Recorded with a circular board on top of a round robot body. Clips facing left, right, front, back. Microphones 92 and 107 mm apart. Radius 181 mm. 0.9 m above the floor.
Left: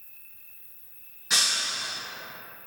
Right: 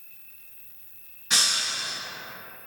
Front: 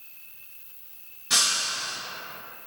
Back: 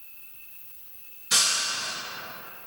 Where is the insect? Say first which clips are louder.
Right 1 dB, even; 110° left, 1.2 m.